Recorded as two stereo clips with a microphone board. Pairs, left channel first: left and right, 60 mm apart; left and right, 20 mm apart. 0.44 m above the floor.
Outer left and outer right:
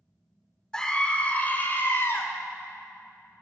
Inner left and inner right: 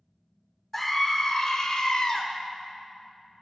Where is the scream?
10° left (ahead or behind), 1.2 m; by 2.2 s 45° left (ahead or behind), 1.7 m.